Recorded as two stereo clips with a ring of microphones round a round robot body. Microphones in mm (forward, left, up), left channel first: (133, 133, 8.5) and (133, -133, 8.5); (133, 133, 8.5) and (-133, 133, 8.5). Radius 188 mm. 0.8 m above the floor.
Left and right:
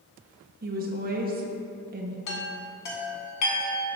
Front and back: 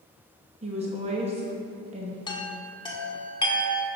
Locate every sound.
0.6 s a woman speaking: 125° right, 0.7 m
2.3 s a chime: 75° left, 1.7 m